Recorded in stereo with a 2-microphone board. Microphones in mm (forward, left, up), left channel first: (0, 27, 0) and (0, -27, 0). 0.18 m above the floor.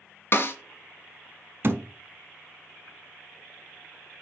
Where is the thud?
45° right (ahead or behind), 0.6 m.